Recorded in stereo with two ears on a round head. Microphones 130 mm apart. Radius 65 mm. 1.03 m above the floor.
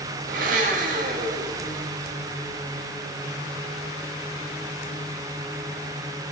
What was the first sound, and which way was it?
A blender, 60° right (ahead or behind).